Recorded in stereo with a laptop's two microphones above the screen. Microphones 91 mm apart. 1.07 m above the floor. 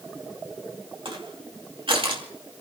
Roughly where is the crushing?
Right.